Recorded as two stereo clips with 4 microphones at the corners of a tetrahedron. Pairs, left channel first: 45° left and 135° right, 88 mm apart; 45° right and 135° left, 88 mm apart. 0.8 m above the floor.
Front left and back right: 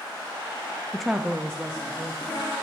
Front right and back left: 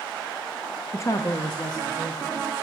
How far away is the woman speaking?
About 0.5 m.